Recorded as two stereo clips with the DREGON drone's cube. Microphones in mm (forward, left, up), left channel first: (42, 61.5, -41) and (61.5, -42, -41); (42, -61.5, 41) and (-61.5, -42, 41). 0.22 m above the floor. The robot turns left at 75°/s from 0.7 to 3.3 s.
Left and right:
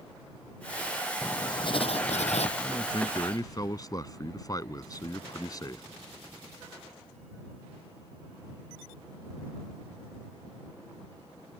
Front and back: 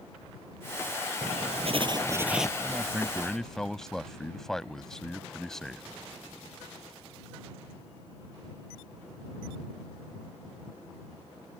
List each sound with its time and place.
1.2 s writing: 175° left; by 2.5 s 80° left
2.6 s a man speaking: 125° left; by 5.8 s 75° left